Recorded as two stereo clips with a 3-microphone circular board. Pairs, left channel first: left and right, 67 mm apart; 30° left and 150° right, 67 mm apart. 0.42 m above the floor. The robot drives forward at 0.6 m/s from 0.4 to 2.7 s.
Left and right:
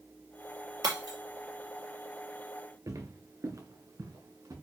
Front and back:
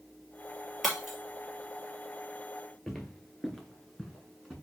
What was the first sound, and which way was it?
Breaking glass, 60° right.